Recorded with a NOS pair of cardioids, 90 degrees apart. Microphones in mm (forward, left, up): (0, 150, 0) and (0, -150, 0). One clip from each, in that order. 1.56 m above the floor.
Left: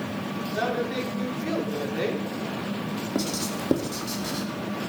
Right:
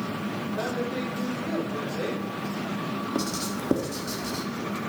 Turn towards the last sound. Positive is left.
turn(degrees=5)